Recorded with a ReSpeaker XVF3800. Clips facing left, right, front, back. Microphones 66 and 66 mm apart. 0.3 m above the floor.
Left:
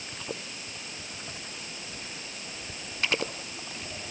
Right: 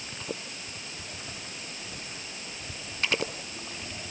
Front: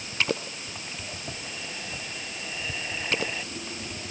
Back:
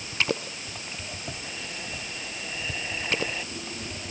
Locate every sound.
Only background noise.